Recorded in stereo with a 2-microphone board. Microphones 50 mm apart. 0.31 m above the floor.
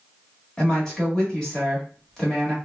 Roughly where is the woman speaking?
Centre.